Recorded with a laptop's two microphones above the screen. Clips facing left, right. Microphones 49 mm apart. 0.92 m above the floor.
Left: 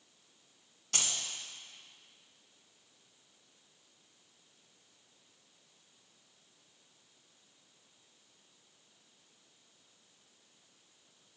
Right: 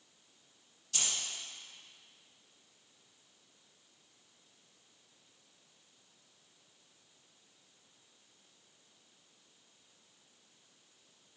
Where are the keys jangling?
65° left (ahead or behind), 1.7 m.